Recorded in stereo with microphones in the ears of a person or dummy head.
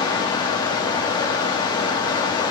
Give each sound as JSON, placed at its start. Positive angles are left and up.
{"t": 0.0, "sound": "running water", "side_deg": 20, "distance_m": 2.5}